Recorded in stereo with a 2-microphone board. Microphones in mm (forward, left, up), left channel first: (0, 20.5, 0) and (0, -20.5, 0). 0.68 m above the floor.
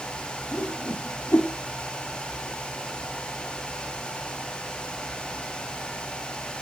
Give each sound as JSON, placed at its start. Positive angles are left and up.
{"t": 0.5, "sound": "a whoosh", "side_deg": 80, "distance_m": 0.6}